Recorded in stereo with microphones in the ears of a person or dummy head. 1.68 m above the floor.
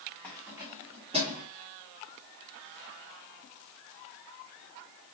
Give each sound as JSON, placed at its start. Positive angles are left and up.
{"t": 0.2, "sound": "keys jangling", "side_deg": 10, "distance_m": 1.1}